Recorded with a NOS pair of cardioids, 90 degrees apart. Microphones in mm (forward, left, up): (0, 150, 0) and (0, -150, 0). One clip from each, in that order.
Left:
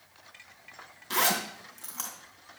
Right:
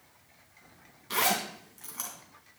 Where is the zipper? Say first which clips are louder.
Left 1 dB; 15° left, 2.5 m.